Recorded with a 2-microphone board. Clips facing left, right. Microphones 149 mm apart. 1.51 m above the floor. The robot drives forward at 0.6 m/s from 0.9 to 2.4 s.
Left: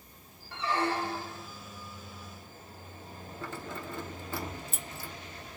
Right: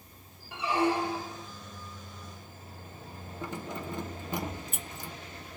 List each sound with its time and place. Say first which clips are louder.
0.5 s a squeak: right 3 dB; 10° right (ahead or behind), 0.8 m
3.4 s keys jangling: right 3 dB; 15° right (ahead or behind), 0.7 m